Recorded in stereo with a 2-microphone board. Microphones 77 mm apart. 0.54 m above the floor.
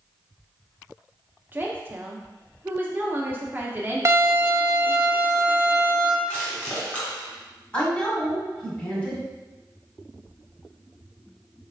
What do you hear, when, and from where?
1.5 s a woman speaking: 25° right (ahead or behind), 0.7 m
4.0 s a violin: 40° right (ahead or behind), 0.5 m
6.3 s crushing: 20° left (ahead or behind), 1.9 m
7.7 s a woman speaking: 15° left (ahead or behind), 1.8 m